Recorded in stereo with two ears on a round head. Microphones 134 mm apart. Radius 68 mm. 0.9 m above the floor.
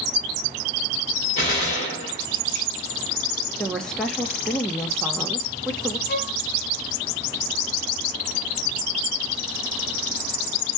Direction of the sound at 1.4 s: 45° left (ahead or behind).